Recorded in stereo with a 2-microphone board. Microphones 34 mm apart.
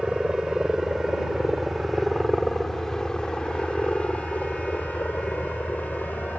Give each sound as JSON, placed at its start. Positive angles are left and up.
{"t": 0.0, "sound": "a helicopter", "side_deg": -25}